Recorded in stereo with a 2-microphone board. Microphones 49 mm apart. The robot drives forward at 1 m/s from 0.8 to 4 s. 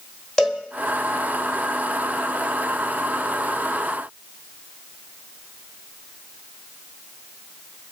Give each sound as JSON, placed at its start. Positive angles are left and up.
{"t": 0.4, "sound": "a cowbell", "side_deg": 15, "distance_m": 1.2}